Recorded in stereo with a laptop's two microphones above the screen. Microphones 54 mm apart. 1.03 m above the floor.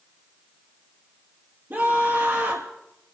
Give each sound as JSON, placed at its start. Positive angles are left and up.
{"t": 1.7, "sound": "a scream", "side_deg": -45, "distance_m": 2.5}